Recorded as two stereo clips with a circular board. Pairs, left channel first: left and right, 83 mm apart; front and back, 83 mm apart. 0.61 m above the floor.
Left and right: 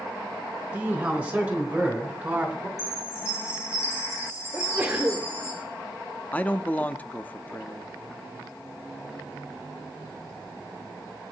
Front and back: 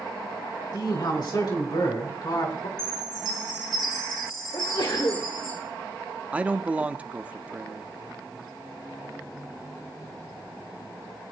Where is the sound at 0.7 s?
20° right, 3.5 m; by 2.7 s 25° right, 2.5 m.